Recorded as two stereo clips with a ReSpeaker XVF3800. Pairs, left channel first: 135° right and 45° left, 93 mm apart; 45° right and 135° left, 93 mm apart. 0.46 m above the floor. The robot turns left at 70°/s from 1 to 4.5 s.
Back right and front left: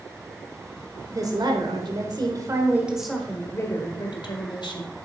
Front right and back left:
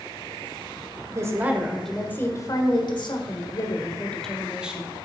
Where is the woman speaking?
95° left, 1.4 m; by 4.9 s 145° right, 1.4 m.